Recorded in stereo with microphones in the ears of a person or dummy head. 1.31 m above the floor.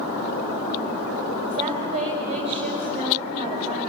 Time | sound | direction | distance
1.5 | a woman speaking | 30° right (ahead or behind) | 2.5 m